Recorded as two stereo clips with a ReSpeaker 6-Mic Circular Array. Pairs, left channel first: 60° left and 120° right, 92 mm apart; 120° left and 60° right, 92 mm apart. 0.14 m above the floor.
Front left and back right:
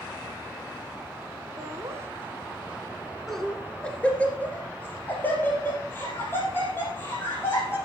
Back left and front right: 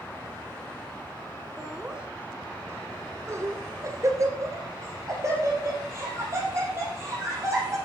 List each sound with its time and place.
1.6 s laughter: 145° right, 1.5 m; by 7.8 s straight ahead, 5.5 m